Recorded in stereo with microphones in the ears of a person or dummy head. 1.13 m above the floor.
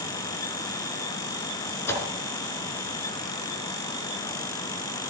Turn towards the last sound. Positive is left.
turn(degrees=20)  # may be behind; listen again after turning